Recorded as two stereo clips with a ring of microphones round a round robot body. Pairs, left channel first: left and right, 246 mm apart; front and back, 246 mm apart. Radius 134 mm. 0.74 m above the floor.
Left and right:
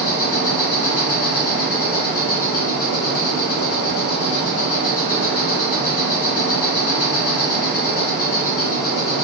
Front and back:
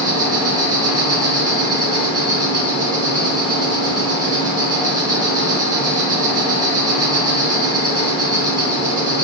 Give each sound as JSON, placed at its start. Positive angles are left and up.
{"t": 0.0, "sound": "an insect", "azimuth_deg": 105, "distance_m": 1.4}